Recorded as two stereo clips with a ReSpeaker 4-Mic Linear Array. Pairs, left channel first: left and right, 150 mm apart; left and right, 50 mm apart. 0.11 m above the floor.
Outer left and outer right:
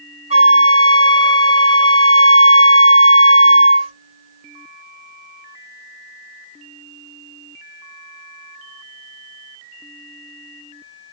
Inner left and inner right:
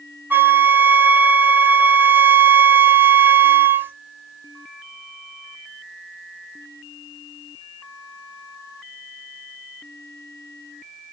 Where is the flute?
40° right (ahead or behind), 1.9 m.